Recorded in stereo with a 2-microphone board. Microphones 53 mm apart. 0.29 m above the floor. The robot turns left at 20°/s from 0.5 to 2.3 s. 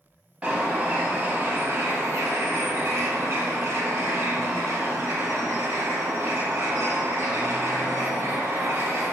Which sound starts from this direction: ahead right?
A bird, at 0.4 s.